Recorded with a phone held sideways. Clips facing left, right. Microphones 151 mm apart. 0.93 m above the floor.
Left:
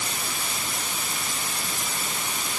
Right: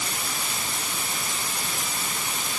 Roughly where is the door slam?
No door slam in this recording.